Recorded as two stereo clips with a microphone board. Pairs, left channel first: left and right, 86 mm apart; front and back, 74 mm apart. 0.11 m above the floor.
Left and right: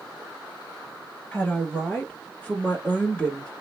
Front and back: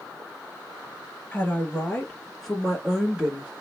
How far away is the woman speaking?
About 1.8 m.